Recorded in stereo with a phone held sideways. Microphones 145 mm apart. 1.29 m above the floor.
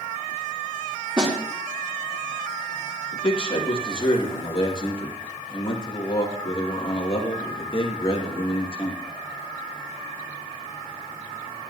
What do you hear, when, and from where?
1.2 s a snare drum: 35° right (ahead or behind), 5 m
3.1 s a man speaking: 40° left (ahead or behind), 2.5 m